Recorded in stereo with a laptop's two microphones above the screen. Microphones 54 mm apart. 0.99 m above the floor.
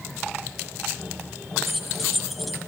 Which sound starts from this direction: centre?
Keys jangling, at 1.6 s.